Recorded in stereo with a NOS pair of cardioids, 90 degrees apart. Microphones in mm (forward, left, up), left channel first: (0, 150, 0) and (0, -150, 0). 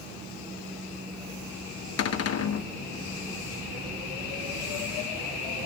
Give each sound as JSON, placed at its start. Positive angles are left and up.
{"t": 2.0, "sound": "a cupboard door", "azimuth_deg": 55, "distance_m": 1.1}